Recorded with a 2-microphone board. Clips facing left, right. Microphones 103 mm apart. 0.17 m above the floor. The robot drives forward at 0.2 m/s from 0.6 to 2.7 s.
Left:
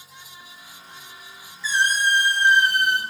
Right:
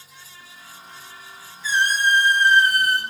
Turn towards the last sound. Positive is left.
turn(degrees=-40)  # may be behind; listen again after turning